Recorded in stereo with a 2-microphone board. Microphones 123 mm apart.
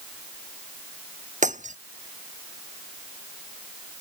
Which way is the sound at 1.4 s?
85° right.